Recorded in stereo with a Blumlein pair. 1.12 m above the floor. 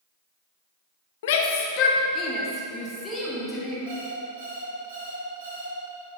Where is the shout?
55° left, 1.1 m; by 3.8 s 10° left, 2.5 m.